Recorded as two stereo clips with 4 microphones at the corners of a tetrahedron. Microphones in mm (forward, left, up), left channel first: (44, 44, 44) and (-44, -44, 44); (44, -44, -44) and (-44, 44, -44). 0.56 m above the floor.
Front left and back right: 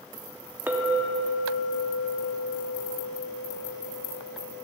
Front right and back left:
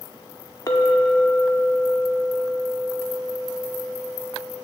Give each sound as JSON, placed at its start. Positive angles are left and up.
{"t": 0.7, "sound": "a clink", "azimuth_deg": -70, "distance_m": 0.7}